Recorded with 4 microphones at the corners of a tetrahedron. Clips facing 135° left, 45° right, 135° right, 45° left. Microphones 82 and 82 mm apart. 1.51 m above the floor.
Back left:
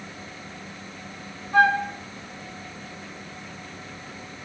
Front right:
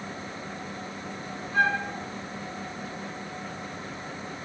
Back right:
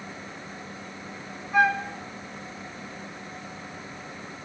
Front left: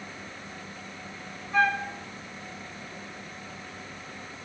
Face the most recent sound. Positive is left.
turn(degrees=145)